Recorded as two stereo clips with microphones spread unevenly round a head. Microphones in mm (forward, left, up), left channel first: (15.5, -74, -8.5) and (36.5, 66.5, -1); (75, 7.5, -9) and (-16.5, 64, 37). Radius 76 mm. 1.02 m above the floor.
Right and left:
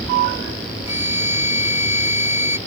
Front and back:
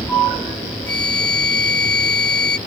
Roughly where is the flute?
Ahead.